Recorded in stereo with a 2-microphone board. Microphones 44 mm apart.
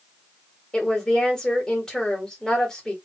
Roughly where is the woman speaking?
Centre.